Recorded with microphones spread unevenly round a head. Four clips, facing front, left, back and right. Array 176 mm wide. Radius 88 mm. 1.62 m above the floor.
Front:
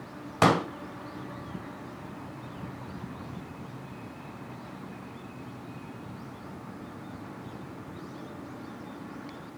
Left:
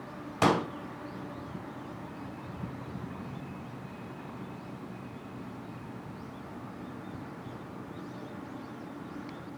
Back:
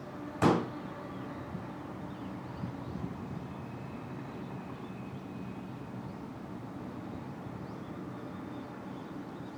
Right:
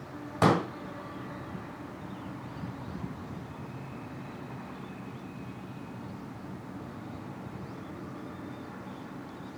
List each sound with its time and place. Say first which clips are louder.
0.4 s a pop: right 1 dB, front 4 dB; 5° right, 2.0 m